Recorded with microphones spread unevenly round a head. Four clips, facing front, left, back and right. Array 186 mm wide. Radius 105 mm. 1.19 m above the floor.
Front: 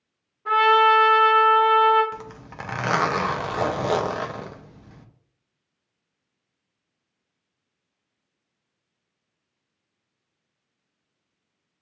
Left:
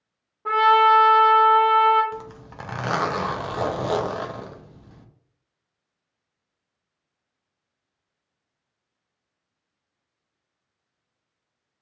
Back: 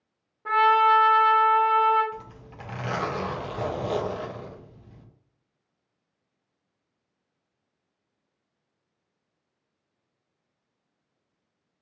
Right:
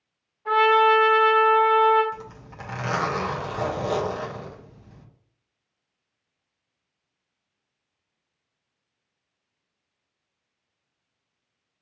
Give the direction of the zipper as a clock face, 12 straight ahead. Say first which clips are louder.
Left 3 dB, front 4 dB; 11 o'clock.